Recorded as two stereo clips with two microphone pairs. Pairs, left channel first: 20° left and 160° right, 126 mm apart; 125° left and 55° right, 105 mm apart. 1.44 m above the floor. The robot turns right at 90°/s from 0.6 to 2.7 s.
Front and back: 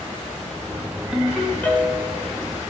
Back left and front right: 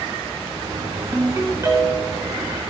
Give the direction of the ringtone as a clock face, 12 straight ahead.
3 o'clock.